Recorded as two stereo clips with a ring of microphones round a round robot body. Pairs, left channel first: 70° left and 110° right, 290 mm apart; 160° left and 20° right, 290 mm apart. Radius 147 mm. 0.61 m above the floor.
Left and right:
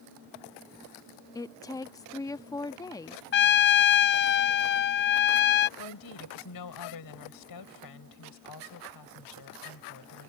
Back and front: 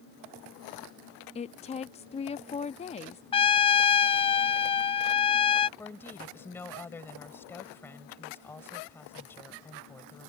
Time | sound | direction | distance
1.4 | a woman speaking | 125° left | ?
3.3 | a trumpet | 95° left | ?
5.8 | a woman speaking | 75° left | ?